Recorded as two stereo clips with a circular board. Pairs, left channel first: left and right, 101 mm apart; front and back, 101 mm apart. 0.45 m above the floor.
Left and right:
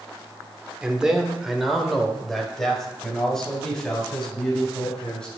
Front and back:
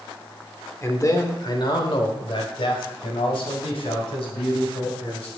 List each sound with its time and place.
0.8 s a man speaking: 20° right, 1.1 m; by 5.3 s 10° left, 4 m